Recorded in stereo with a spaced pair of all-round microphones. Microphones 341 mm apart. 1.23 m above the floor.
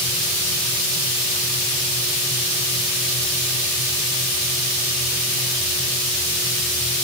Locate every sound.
Only background noise.